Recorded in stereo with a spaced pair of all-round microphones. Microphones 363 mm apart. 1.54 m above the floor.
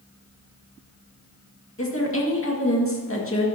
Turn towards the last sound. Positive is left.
turn(degrees=35)  # may be behind; listen again after turning